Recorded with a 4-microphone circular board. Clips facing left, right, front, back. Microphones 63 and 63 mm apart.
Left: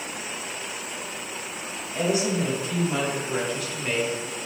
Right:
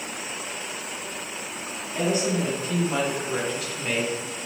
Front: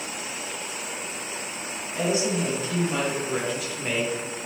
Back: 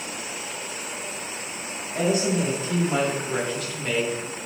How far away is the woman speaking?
About 1.1 m.